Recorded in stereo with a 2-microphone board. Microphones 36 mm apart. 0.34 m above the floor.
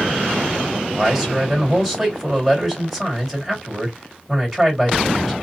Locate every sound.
0.9 s a man speaking: centre (ahead or behind), 2.0 m